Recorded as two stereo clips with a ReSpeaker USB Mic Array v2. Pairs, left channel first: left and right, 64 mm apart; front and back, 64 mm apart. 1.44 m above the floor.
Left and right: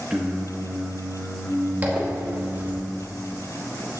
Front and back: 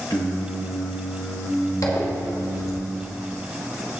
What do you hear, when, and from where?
0.1 s singing: 15° right, 2.0 m
1.8 s a zipper: 25° right, 2 m